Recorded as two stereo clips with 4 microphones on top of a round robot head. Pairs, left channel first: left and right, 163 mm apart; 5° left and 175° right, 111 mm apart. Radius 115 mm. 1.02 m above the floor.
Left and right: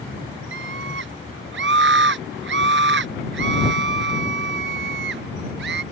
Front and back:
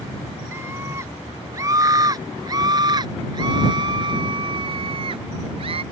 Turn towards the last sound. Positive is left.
turn(degrees=-120)